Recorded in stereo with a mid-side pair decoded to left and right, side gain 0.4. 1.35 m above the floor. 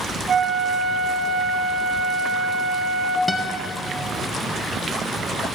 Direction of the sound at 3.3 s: 10° left.